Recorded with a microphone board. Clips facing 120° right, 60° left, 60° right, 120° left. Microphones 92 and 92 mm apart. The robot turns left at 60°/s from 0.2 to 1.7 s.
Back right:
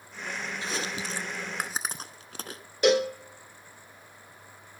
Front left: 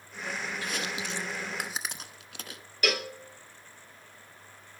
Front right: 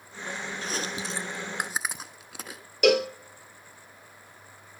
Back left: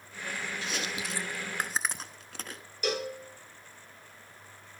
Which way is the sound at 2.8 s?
55° right.